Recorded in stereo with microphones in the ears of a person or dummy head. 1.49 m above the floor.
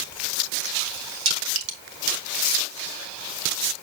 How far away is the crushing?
About 2.5 m.